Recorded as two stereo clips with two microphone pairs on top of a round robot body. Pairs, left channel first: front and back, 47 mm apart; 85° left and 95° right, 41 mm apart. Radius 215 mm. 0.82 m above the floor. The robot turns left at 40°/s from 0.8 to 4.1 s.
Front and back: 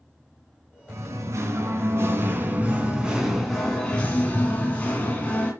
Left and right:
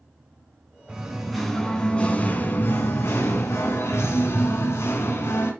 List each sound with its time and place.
0.9 s singing: 170° right, 2.5 m; by 5.5 s 65° left, 2.5 m